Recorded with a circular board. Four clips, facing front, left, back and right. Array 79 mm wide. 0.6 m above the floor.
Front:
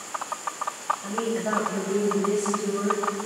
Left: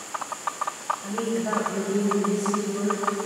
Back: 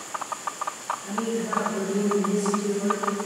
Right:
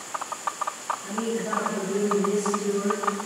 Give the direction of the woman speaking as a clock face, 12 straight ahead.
11 o'clock.